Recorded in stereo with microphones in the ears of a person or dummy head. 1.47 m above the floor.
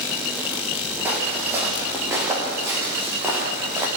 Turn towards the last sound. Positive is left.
turn(degrees=-15)  # may be behind; listen again after turning